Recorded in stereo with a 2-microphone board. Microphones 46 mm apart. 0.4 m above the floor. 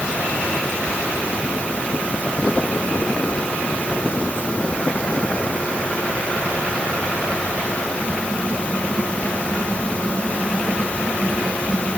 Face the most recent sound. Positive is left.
No sound to turn to.